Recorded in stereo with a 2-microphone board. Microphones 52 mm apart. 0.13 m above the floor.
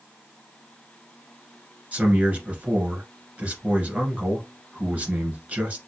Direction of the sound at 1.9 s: 25° right (ahead or behind).